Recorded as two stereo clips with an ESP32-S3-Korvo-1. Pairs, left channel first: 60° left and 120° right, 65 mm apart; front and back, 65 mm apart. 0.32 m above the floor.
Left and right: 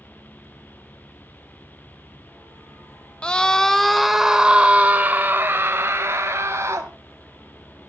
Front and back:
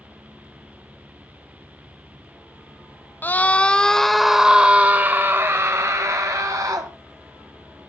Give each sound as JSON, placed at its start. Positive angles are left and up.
{"t": 3.2, "sound": "a scream", "azimuth_deg": 5, "distance_m": 1.3}